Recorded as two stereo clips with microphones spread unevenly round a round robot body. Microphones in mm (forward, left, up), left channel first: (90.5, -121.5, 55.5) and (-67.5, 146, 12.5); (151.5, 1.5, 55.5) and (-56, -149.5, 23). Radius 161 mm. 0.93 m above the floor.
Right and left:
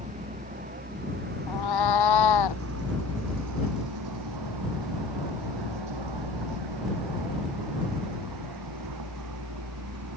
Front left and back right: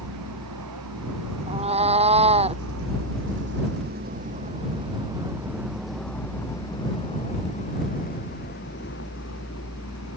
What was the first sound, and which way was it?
A vehicle, 170° right.